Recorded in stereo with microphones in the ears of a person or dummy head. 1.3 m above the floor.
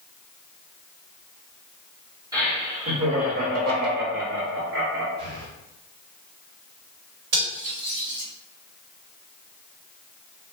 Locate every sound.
2.3 s laughter: 20° right (ahead or behind), 1.4 m; by 5.1 s 60° right (ahead or behind), 0.9 m
5.2 s breathing: 50° right (ahead or behind), 1.4 m
7.3 s cutlery clinking: 65° right (ahead or behind), 1.8 m